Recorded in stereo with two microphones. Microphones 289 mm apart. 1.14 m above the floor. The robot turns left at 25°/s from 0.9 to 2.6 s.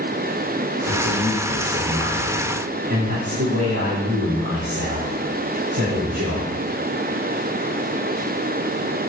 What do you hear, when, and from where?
0.9 s a man speaking: 45° right, 4.5 m; by 6.5 s 85° right, 4.5 m